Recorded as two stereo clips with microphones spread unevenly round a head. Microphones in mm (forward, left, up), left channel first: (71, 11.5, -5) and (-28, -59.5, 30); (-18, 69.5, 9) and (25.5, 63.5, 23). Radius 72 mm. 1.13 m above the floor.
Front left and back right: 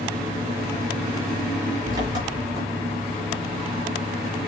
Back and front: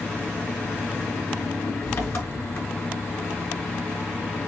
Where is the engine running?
150° left, 6 m.